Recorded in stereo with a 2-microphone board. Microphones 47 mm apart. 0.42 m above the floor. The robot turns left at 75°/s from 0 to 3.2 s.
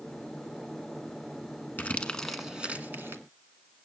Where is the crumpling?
40° left (ahead or behind), 1.4 m; by 3.2 s 65° right (ahead or behind), 1.4 m.